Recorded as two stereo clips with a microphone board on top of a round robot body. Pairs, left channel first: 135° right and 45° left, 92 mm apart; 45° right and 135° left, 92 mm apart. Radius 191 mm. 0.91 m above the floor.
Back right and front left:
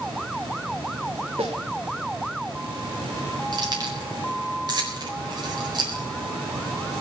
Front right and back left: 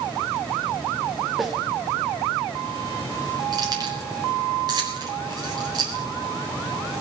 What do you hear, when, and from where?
1.4 s a snare drum: 45° left, 0.7 m
3.5 s keys jangling: 90° left, 4.5 m